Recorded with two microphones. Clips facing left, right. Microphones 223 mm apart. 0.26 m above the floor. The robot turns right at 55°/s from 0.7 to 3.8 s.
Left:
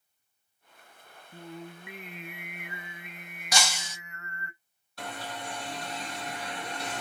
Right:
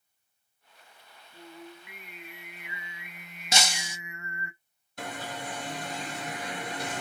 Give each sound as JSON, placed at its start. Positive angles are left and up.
{"t": 1.3, "sound": "singing", "azimuth_deg": 55, "distance_m": 0.6}
{"t": 3.5, "sound": "breaking glass", "side_deg": -25, "distance_m": 1.0}
{"t": 5.0, "sound": "an alarm", "side_deg": -15, "distance_m": 2.0}